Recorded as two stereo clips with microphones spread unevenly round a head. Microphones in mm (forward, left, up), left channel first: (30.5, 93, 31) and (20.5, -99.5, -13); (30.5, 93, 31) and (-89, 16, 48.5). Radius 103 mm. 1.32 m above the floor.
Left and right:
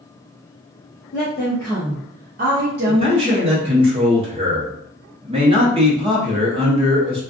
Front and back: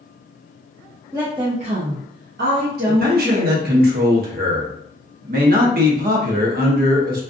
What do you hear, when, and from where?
1.1 s a woman speaking: 140° left, 0.7 m; by 3.6 s 110° right, 1.3 m
2.9 s a man speaking: 155° right, 0.8 m